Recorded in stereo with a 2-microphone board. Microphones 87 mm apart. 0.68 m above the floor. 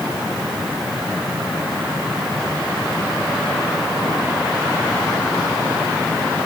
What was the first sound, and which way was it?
Only background noise.